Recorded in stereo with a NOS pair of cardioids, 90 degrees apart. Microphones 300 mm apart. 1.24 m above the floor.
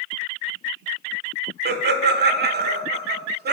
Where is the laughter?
35° right, 0.6 m.